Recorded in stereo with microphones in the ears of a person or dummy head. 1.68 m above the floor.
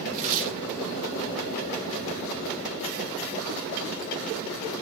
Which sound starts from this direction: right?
Tearing paper, at 0.1 s.